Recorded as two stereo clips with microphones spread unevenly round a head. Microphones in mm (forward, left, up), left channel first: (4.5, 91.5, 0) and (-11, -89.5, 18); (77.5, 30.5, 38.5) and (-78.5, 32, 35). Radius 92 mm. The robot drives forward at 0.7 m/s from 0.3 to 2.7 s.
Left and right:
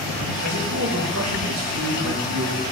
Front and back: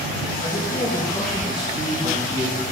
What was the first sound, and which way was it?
A man speaking, 65° right.